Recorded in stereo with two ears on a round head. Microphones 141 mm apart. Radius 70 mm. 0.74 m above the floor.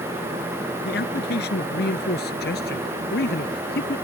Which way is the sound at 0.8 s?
65° left (ahead or behind).